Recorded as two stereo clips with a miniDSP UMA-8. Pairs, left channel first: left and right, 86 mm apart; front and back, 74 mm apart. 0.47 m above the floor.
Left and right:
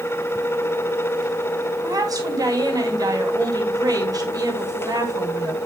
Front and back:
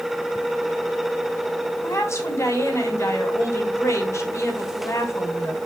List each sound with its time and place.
1.8 s a woman speaking: 50° right, 3 m